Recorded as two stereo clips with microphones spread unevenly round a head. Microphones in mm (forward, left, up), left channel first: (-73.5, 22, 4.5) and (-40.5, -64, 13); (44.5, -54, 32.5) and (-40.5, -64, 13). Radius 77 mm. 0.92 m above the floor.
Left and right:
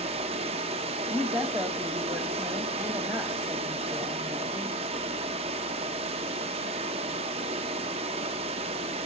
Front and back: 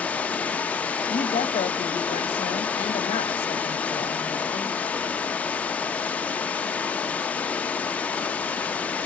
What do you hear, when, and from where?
0.0 s running water: 65° right, 0.7 m
1.1 s a woman speaking: 5° left, 1.1 m